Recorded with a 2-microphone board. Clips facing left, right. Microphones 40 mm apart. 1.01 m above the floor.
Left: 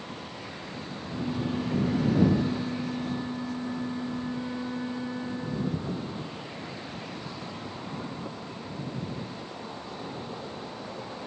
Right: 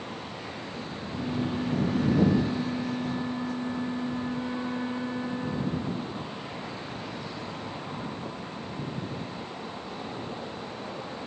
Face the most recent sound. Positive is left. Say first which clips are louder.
# even
turn(degrees=-5)  # may be behind; listen again after turning